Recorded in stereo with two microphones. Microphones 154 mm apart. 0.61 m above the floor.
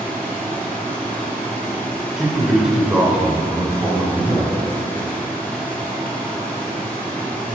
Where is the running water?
10° left (ahead or behind), 2.5 m.